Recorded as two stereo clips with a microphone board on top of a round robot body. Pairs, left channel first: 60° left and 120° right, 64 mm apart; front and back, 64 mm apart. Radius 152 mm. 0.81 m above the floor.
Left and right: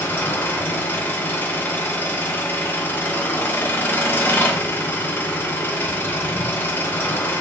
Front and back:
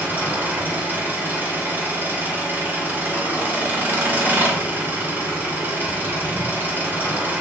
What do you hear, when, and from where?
0.0 s an engine running: 120° left, 0.9 m